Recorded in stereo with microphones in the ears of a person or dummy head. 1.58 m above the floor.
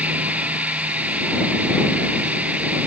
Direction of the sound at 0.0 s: 5° right (ahead or behind).